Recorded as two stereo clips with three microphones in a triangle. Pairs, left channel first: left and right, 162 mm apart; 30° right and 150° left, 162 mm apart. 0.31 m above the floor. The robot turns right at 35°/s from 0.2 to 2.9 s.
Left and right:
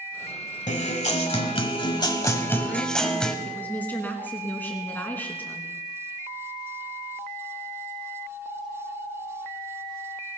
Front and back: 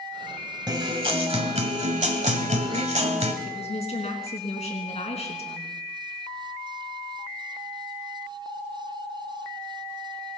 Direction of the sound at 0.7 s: 95° left.